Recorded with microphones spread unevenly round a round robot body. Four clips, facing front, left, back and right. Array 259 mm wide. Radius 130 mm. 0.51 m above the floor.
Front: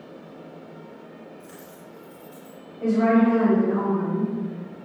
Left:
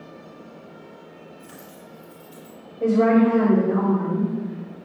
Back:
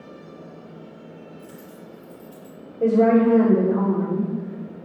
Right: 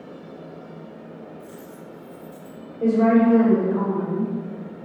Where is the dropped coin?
160° left, 4 m.